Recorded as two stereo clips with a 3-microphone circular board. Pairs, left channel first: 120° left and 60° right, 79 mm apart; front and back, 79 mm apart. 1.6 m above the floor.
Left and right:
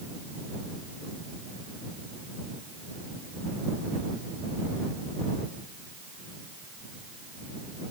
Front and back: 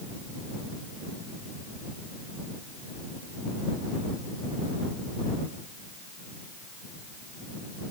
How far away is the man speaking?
I don't hear a man speaking.